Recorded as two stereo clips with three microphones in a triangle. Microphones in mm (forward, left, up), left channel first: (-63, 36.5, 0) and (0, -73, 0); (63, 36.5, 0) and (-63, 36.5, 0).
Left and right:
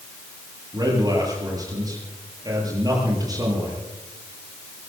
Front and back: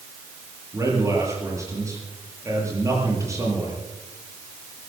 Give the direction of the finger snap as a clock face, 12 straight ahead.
I don't hear a finger snap.